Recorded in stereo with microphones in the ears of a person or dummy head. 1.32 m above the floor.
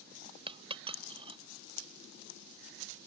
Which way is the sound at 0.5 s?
30° right (ahead or behind).